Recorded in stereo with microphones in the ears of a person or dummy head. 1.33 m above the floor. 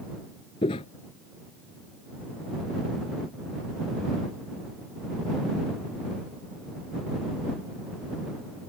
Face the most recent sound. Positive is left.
turn(degrees=30)  # may be behind; listen again after turning